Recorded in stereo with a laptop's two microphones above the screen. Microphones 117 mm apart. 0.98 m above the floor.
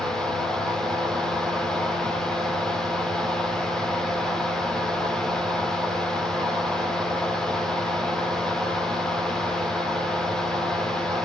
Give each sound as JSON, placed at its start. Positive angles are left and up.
{"t": 0.0, "sound": "a fan", "side_deg": 5, "distance_m": 2.0}